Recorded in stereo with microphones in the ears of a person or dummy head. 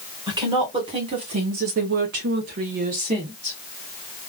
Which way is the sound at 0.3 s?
25° right (ahead or behind).